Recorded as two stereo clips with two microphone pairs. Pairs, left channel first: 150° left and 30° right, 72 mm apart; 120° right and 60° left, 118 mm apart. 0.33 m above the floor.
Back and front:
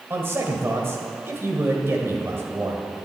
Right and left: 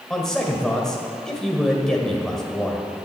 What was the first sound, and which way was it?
A man speaking, 40° right.